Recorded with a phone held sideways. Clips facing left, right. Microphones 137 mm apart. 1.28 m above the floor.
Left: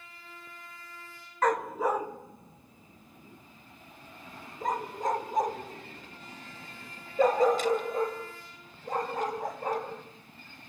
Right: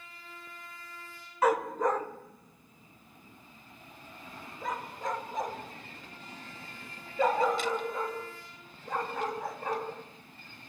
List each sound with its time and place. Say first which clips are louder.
1.4 s a dog barking: right 1 dB; 10° right (ahead or behind), 0.6 m; by 9.9 s 45° left (ahead or behind), 4.5 m